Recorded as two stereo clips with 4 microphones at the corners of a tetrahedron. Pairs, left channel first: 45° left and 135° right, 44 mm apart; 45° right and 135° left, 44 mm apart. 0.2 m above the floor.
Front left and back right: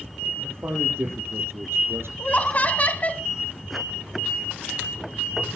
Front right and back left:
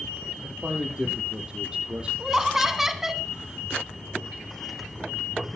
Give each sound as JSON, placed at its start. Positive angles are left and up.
{"t": 0.4, "sound": "a man speaking", "azimuth_deg": -155, "distance_m": 5.5}
{"t": 2.2, "sound": "laughter", "azimuth_deg": 60, "distance_m": 1.5}